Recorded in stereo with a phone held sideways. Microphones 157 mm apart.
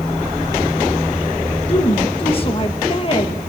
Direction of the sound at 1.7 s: 35° left (ahead or behind).